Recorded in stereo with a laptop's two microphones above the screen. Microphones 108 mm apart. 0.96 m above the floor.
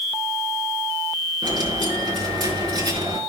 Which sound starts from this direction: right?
A dropped coin, at 1.4 s.